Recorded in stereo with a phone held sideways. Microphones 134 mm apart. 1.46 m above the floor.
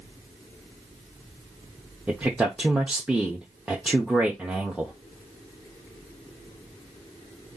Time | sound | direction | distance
2.1 | a man speaking | 5° right (ahead or behind) | 0.9 m